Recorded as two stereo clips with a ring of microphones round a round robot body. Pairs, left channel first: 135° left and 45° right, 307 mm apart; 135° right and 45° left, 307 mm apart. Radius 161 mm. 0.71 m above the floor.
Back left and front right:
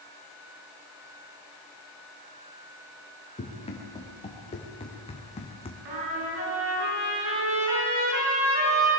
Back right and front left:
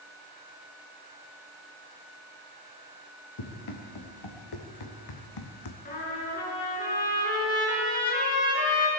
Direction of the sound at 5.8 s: 70° right.